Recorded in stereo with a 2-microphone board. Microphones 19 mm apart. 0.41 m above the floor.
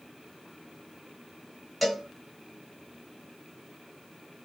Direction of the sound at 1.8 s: 5° right (ahead or behind).